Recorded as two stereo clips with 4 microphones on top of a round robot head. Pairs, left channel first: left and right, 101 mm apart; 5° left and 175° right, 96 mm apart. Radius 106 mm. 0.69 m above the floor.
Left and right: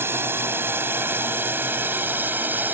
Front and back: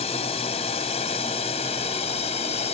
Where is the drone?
20° right.